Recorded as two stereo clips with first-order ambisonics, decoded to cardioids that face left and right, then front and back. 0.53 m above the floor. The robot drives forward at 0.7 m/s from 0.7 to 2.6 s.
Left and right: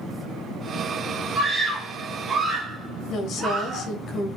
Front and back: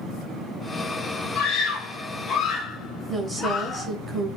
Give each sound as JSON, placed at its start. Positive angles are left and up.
{"t": 1.4, "sound": "a scream", "azimuth_deg": -15, "distance_m": 1.7}
{"t": 3.1, "sound": "a woman speaking", "azimuth_deg": 115, "distance_m": 0.8}